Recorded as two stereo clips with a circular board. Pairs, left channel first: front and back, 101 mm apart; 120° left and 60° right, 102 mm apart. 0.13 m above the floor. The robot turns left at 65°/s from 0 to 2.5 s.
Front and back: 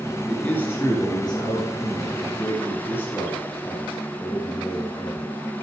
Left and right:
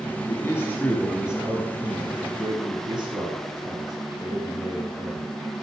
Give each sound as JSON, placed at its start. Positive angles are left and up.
{"t": 0.3, "sound": "a man speaking", "azimuth_deg": 85, "distance_m": 2.0}